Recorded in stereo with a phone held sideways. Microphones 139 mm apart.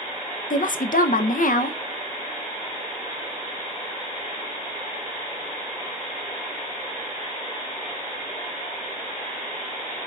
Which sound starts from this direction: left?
A woman speaking, at 0.5 s.